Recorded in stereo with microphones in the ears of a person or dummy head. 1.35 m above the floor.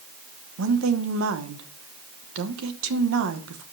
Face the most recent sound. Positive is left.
turn(degrees=-80)